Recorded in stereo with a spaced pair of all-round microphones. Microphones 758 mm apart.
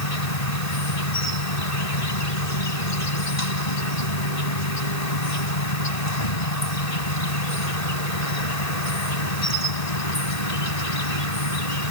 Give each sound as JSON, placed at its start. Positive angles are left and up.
{"t": 0.0, "sound": "an insect", "side_deg": 55}